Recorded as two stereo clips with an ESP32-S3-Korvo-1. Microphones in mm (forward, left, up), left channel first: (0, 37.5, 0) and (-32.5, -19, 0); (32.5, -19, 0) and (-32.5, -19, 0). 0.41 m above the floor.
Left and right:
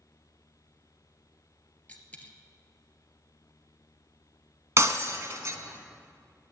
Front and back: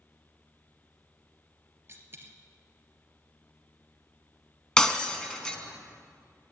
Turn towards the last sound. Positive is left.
turn(degrees=-80)